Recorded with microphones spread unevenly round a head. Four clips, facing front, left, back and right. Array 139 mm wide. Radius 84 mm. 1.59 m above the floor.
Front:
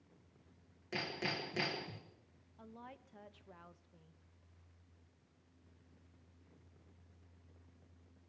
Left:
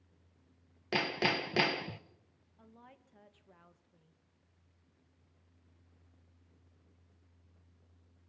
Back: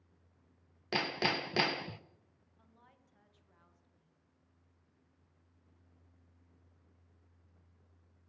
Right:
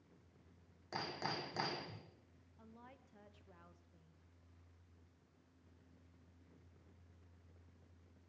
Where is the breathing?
I don't hear breathing.